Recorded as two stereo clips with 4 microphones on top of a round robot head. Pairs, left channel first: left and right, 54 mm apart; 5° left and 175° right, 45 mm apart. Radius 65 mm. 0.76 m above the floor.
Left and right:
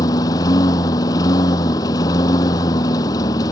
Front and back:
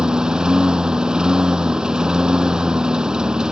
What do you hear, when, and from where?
0.0 s a lawn mower: 110° left